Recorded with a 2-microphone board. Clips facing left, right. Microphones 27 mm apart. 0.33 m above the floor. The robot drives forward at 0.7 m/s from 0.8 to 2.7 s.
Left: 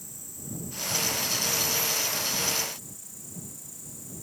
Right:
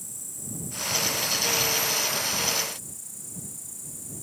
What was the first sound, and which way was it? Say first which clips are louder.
An insect: right 3 dB; 20° left (ahead or behind).